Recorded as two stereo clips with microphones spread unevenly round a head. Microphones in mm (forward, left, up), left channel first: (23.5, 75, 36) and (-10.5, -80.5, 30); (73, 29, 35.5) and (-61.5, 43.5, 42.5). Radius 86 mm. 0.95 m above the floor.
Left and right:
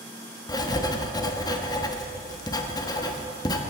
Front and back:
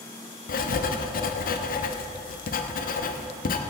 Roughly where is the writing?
Ahead.